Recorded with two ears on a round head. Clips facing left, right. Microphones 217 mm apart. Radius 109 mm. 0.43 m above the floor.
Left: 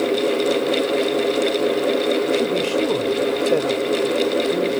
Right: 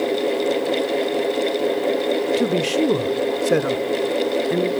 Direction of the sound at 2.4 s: 25° right (ahead or behind).